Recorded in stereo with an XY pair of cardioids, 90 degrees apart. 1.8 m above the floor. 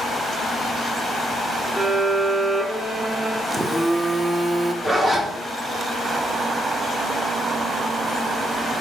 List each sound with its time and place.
1.8 s a violin: 5° right, 3.5 m
3.5 s a phone buzzing: 15° right, 0.8 m
4.8 s a zipper: 35° right, 2 m